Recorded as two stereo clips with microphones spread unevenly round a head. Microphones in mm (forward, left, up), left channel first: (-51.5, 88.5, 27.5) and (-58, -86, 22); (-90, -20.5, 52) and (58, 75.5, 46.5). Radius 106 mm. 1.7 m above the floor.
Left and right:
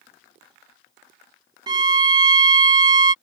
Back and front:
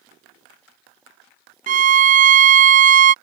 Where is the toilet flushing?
No toilet flushing in this recording.